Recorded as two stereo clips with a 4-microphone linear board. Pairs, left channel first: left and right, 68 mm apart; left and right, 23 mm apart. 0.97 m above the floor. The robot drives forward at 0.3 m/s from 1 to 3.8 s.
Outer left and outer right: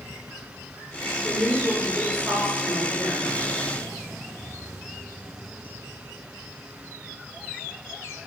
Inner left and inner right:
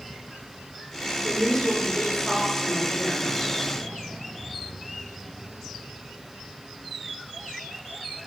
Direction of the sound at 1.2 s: 25° right (ahead or behind).